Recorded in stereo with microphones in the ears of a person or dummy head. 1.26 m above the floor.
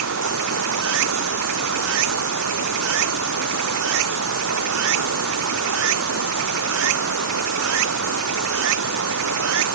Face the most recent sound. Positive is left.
turn(degrees=-75)  # may be behind; listen again after turning